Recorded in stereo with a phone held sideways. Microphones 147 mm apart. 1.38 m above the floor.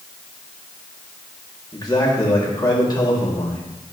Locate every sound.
1.7 s a man speaking: 25° left (ahead or behind), 3 m